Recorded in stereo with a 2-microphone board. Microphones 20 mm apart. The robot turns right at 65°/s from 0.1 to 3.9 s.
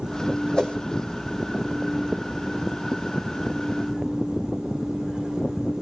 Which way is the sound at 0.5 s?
50° left (ahead or behind).